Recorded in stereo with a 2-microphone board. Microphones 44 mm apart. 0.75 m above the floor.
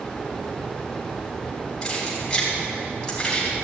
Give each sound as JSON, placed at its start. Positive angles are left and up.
{"t": 1.8, "sound": "keys jangling", "side_deg": 15, "distance_m": 4.0}